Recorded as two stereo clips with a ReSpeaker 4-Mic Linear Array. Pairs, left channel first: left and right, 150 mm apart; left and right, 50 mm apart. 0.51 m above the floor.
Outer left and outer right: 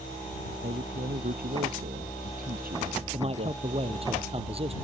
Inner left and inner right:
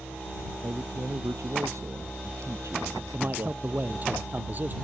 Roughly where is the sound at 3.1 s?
Right.